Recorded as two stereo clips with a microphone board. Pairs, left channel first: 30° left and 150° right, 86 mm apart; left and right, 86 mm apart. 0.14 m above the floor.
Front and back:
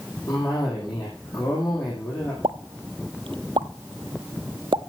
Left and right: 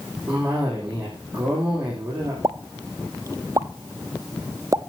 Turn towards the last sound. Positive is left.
turn(degrees=-135)